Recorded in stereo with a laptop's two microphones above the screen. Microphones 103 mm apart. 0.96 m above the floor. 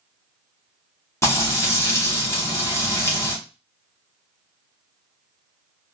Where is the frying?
25° left (ahead or behind), 1.8 m.